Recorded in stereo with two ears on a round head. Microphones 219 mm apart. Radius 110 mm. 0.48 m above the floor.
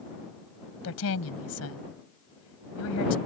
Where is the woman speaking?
65° left (ahead or behind).